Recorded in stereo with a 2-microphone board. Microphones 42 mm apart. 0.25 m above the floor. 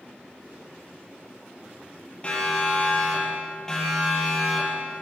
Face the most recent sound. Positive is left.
turn(degrees=0)  # may be behind; listen again after turning